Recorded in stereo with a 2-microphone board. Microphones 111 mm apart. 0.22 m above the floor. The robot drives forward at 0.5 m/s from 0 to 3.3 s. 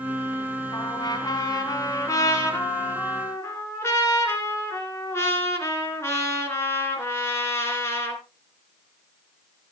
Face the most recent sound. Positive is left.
turn(degrees=25)  # may be behind; listen again after turning